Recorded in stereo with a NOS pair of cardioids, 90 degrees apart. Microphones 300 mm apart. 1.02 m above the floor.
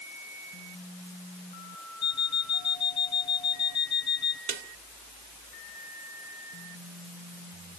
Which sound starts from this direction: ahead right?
A snare drum, at 4.5 s.